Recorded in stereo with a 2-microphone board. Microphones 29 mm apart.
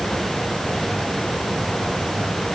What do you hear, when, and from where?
Only background noise.